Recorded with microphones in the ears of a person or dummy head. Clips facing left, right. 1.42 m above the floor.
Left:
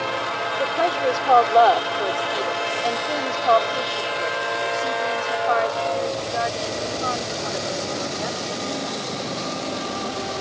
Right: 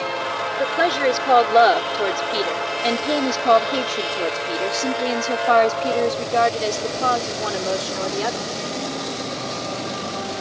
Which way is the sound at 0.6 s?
20° right (ahead or behind).